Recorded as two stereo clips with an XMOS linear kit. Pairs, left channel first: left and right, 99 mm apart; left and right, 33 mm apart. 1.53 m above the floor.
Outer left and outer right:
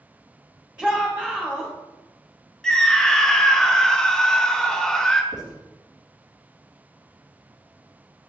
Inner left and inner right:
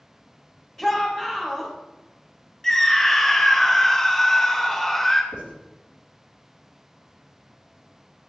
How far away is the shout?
About 1.5 m.